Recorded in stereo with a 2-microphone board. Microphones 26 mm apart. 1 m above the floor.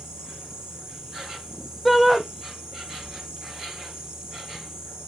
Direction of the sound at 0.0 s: 15° right (ahead or behind).